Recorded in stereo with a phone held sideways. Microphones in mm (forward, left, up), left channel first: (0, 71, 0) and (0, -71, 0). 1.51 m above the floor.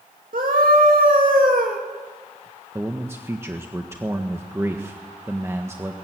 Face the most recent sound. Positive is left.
turn(degrees=-20)  # may be behind; listen again after turning